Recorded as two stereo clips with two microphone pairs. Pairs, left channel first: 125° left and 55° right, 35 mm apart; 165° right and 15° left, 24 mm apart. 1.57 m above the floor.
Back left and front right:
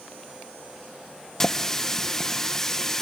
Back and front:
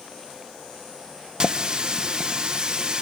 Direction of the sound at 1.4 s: 50° left.